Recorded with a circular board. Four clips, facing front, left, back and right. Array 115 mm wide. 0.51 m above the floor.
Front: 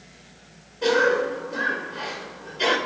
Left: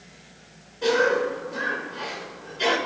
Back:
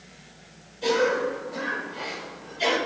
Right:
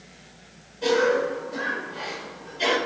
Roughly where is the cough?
Ahead left.